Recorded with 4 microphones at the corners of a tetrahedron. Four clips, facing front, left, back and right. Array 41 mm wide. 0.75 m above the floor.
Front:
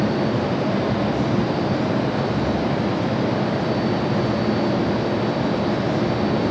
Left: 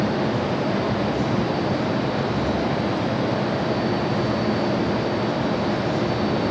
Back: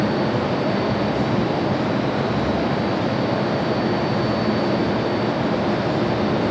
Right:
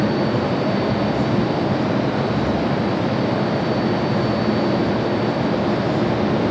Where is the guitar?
No guitar in this recording.